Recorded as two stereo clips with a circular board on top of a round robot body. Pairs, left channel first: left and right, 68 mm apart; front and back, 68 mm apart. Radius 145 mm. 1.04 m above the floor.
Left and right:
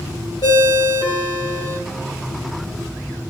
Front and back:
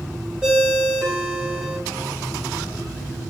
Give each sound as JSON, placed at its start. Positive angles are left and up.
{"t": 0.4, "sound": "a ringtone", "azimuth_deg": 100, "distance_m": 1.6}